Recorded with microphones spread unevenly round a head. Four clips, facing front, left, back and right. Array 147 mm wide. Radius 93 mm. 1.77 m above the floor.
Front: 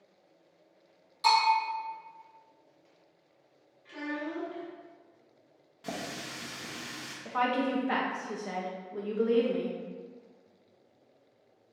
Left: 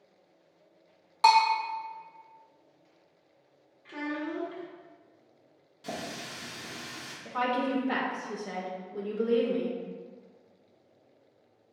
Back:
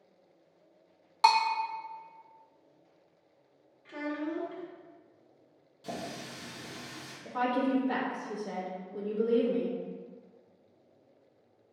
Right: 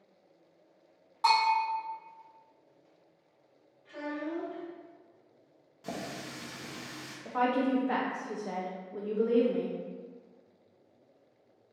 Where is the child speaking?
115° left, 1.1 m.